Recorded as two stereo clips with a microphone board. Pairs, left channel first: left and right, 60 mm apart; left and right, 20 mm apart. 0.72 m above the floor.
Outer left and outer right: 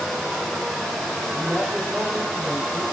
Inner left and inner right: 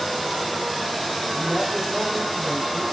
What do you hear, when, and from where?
1.3 s a man speaking: 20° right (ahead or behind), 3 m